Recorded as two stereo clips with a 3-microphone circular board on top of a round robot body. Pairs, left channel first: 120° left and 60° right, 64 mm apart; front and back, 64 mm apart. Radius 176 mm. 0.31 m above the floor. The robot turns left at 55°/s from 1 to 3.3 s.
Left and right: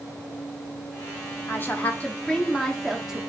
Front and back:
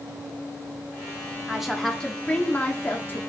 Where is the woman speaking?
105° left, 1.0 m; by 3.2 s 10° left, 1.0 m.